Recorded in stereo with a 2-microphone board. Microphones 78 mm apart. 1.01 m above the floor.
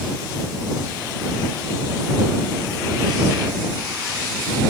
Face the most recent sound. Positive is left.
No sound to turn to.